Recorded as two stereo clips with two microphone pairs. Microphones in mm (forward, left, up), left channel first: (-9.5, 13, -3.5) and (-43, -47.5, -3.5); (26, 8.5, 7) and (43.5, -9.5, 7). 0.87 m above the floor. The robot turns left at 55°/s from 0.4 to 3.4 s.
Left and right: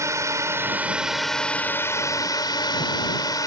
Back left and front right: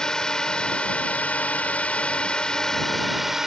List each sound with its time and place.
0.0 s a drone: 165° right; by 3.5 s 30° left